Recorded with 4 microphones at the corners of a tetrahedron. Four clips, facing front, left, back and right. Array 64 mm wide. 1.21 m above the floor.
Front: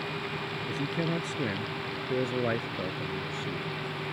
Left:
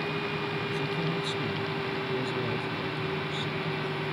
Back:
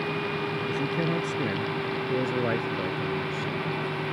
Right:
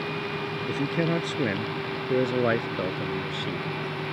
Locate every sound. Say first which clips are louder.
0.7 s a man speaking: right 4 dB, back 2 dB; 85° right